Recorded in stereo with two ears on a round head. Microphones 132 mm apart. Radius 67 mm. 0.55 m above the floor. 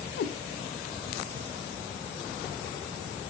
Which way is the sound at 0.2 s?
75° left (ahead or behind).